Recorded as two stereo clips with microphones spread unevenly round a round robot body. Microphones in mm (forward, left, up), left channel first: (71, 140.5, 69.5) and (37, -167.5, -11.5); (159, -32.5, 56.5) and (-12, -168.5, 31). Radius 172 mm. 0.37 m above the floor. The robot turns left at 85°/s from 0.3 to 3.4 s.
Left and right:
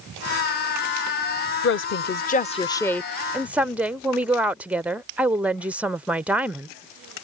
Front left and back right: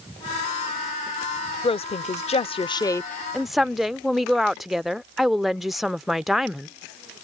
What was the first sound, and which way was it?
A woman speaking, 80° left.